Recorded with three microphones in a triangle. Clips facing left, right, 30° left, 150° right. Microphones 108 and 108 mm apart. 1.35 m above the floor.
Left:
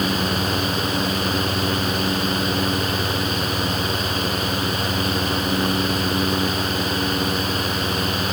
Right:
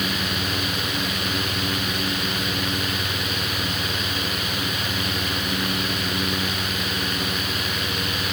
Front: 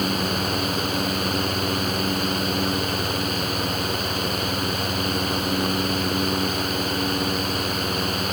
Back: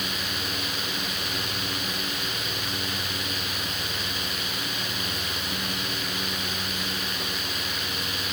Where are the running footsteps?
I don't hear running footsteps.